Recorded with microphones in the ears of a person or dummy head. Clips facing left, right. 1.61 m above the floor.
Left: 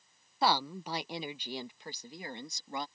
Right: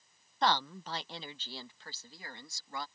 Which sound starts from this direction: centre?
A woman speaking, at 0.4 s.